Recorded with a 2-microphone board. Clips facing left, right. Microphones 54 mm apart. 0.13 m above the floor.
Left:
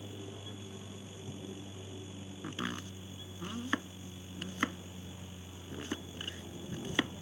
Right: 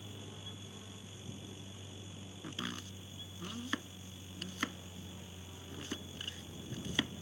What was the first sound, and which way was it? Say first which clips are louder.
An aircraft: left 4 dB; 65° left (ahead or behind).